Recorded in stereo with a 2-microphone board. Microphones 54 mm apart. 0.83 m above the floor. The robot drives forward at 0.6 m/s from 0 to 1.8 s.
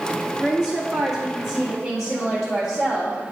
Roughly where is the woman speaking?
Centre.